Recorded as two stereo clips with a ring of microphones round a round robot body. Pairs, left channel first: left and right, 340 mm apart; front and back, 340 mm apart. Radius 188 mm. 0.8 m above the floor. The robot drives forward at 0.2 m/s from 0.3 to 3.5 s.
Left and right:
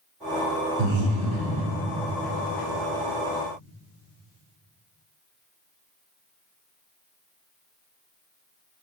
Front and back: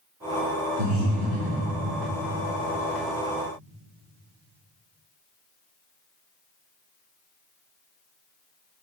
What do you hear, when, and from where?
0.8 s breathing: 130° right, 2.5 m; by 1.7 s 135° right, 3 m